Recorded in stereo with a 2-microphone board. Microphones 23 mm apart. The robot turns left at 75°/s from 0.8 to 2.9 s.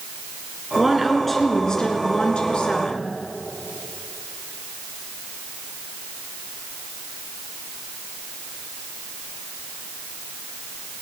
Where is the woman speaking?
155° right, 2.0 m; by 3.1 s 50° left, 2.0 m.